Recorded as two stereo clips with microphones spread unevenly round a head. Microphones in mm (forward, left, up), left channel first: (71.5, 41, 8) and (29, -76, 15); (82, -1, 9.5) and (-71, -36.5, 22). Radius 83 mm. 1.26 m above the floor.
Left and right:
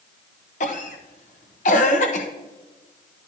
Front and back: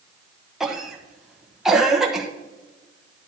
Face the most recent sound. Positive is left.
turn(degrees=105)